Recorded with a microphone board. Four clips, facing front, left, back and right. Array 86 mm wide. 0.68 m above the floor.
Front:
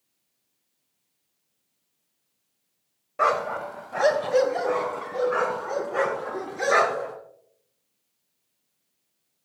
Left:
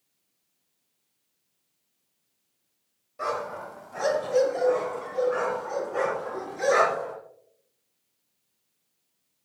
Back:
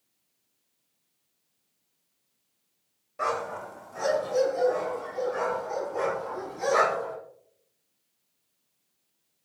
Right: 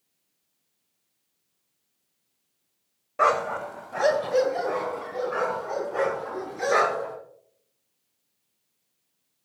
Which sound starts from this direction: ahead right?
A dog barking, at 3.2 s.